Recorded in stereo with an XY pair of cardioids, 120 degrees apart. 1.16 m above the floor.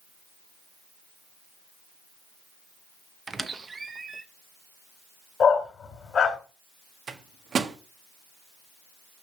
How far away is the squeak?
About 0.8 m.